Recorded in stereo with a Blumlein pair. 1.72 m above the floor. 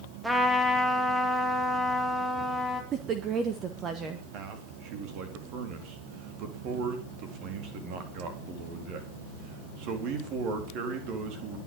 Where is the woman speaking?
30° right, 1.6 m.